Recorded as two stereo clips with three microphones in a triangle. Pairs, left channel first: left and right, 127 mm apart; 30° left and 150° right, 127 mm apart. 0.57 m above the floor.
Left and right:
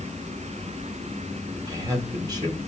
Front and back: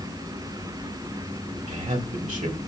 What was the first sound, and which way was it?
A man speaking, 150° right.